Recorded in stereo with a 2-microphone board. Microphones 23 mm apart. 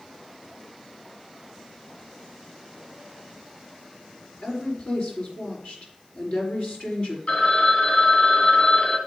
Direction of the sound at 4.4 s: 55° left (ahead or behind).